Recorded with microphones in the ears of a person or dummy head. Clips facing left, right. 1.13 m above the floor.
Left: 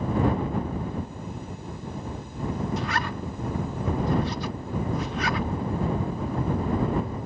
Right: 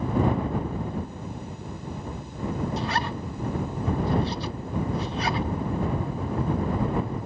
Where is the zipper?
35° right (ahead or behind).